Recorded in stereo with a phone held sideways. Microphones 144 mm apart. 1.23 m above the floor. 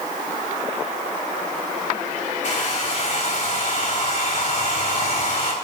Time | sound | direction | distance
2.4 | a hair dryer | 55° left (ahead or behind) | 3.5 m